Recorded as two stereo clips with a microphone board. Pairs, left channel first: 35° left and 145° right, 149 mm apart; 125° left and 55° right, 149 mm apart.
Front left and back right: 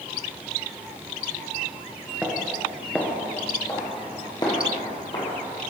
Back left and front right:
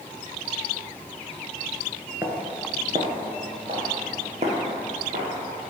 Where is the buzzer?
I don't hear a buzzer.